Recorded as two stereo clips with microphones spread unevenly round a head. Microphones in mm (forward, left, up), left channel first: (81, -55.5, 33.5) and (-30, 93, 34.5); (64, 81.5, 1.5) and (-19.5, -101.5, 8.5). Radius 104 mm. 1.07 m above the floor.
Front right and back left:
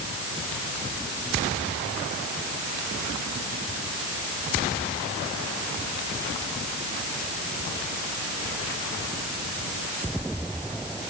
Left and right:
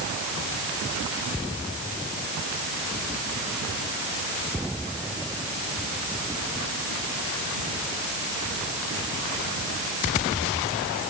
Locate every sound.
Only background noise.